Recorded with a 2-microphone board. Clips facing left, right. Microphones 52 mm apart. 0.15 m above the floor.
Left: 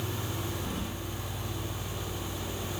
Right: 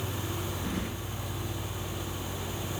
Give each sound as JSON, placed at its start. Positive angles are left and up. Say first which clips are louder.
{"t": 0.6, "sound": "keys jangling", "louder": "right 2 dB", "side_deg": -55, "distance_m": 1.4}